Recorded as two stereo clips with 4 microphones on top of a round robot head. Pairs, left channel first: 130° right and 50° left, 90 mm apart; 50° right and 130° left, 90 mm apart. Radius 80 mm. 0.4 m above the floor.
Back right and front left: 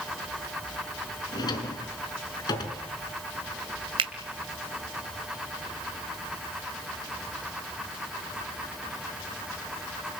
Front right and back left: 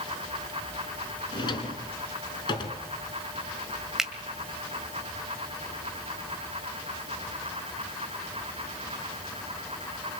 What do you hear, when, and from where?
1.3 s a drawer: 90° right, 3.5 m
4.0 s a finger snap: 50° left, 2.5 m